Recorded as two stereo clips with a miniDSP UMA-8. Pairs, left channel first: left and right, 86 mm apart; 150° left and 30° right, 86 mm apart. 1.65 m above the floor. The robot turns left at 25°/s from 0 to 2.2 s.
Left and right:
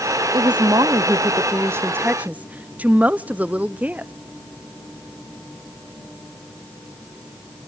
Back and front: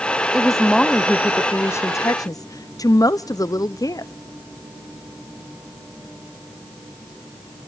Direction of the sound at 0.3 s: 115° right.